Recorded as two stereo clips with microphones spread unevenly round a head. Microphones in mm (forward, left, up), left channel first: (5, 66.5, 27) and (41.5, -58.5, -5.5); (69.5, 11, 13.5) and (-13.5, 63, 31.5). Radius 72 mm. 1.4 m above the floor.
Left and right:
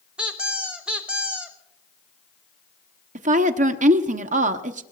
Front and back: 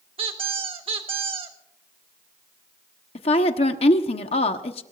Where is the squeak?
160° right, 1.1 m.